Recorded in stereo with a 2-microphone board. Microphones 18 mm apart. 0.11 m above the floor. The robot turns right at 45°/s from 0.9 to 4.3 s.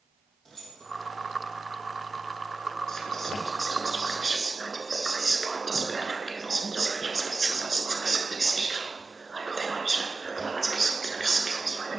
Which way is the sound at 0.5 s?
15° left (ahead or behind).